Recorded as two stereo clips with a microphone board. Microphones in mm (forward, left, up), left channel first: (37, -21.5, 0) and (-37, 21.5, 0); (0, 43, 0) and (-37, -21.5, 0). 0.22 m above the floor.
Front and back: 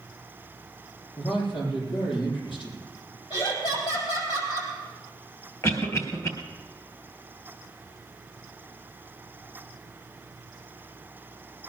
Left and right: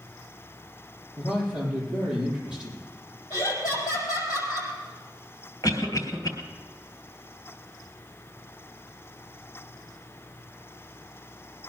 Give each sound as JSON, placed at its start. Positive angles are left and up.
{"t": 1.2, "sound": "a man speaking", "azimuth_deg": -45, "distance_m": 7.0}
{"t": 3.3, "sound": "laughter", "azimuth_deg": 10, "distance_m": 6.5}
{"t": 5.6, "sound": "a cough", "azimuth_deg": 20, "distance_m": 3.5}